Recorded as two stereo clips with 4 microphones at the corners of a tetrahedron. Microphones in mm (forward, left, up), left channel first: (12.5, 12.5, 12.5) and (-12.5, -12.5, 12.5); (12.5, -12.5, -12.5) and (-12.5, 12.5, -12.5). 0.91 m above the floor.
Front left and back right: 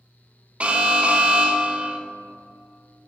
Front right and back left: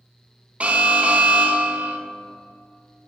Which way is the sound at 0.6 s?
Straight behind.